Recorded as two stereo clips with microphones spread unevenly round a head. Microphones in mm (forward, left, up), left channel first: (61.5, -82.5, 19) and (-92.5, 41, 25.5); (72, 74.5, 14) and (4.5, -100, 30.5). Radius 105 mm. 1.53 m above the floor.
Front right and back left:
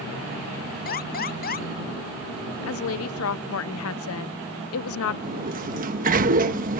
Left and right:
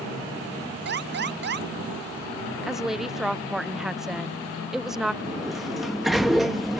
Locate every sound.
0.8 s an alarm: 85° right
2.6 s a woman speaking: 25° right
5.2 s a sliding door: 165° left